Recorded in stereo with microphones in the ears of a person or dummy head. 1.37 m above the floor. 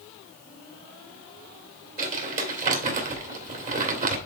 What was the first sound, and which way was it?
Crumpling, 40° right (ahead or behind).